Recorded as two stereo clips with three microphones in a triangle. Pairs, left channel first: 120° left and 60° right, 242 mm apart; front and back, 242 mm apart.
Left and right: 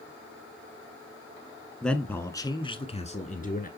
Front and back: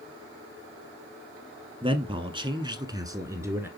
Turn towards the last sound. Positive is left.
turn(degrees=105)